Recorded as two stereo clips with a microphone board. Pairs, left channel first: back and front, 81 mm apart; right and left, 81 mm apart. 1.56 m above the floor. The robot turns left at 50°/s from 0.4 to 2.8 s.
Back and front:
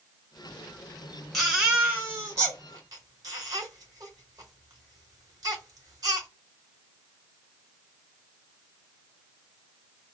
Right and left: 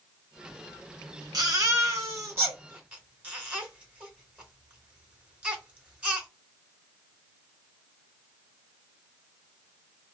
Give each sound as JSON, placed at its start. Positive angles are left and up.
{"t": 1.3, "sound": "a baby crying", "azimuth_deg": 90, "distance_m": 1.8}